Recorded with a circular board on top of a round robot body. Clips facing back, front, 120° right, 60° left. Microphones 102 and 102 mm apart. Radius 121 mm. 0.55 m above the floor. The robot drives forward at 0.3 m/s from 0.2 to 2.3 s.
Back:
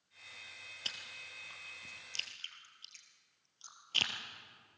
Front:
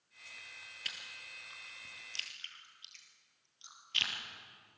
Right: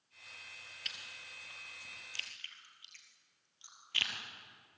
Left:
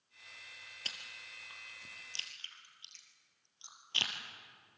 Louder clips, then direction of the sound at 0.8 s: Even, left 1 dB; 115° left.